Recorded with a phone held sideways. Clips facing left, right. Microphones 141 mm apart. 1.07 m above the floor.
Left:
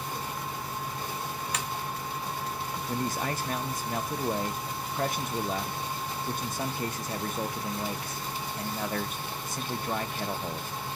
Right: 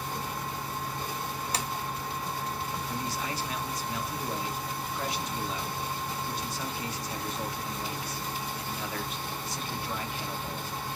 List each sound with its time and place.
0.0 s a fan: 5° left (ahead or behind), 1.4 m
1.5 s tapping: 35° right (ahead or behind), 0.5 m
2.9 s a man speaking: 55° left (ahead or behind), 0.7 m